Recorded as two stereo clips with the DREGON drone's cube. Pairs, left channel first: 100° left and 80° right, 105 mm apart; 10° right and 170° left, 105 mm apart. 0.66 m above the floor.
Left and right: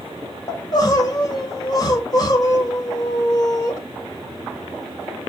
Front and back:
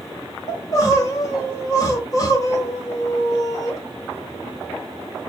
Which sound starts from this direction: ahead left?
Crying, at 0.5 s.